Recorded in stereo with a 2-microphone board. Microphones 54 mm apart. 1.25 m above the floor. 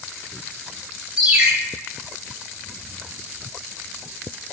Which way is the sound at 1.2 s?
10° right (ahead or behind).